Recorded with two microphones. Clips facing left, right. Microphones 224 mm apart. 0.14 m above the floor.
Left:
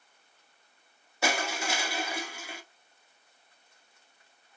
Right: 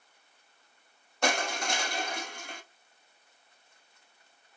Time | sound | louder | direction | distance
1.2 | crushing | right 1 dB | 5° left (ahead or behind) | 0.6 m